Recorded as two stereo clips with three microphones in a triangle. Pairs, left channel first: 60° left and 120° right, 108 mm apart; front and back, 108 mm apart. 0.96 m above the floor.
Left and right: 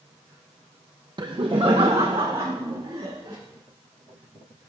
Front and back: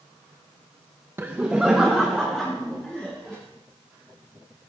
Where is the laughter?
125° right, 0.6 m; by 3.4 s 85° right, 2.5 m.